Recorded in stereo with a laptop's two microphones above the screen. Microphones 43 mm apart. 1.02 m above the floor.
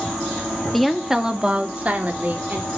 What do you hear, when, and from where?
0.7 s a woman speaking: 5° left (ahead or behind), 1.7 m; by 2.7 s 50° right (ahead or behind), 3 m